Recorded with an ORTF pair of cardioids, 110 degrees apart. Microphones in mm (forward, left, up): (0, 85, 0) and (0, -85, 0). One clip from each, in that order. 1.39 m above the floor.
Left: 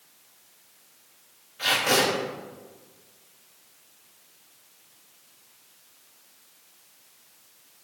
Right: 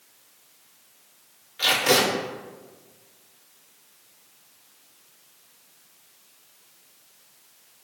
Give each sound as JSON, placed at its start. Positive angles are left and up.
{"t": 1.6, "sound": "tape being pulled", "azimuth_deg": -70, "distance_m": 1.8}